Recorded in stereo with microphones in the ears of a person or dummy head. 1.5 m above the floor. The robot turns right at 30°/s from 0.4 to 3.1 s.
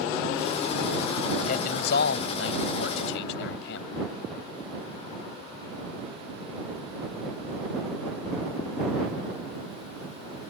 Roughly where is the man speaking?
Ahead left.